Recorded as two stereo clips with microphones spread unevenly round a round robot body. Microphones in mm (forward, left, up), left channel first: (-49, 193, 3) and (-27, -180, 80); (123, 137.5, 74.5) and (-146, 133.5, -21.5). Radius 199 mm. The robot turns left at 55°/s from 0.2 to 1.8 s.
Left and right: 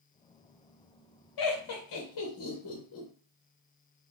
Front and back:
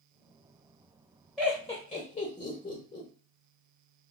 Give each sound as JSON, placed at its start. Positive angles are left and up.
{"t": 1.4, "sound": "laughter", "azimuth_deg": 100, "distance_m": 0.9}